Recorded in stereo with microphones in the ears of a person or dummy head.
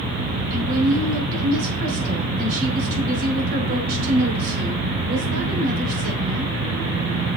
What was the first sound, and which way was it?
A woman speaking, 55° right (ahead or behind).